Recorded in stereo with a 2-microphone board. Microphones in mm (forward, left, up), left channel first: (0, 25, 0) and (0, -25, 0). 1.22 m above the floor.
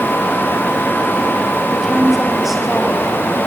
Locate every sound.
1.7 s a woman speaking: centre (ahead or behind), 7 m; by 3.4 s 5° right (ahead or behind), 8.5 m